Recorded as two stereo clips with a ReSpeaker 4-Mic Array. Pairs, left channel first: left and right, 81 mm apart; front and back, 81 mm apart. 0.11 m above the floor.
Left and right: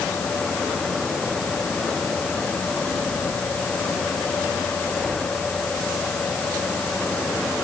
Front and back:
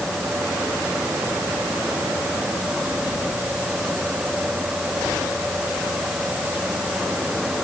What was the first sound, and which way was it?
Only background noise.